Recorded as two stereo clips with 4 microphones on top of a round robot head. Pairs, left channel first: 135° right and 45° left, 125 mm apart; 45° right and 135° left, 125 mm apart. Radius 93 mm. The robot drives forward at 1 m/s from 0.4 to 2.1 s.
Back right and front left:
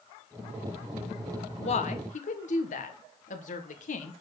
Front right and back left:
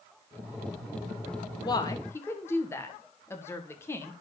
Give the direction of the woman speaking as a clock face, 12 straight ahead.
3 o'clock.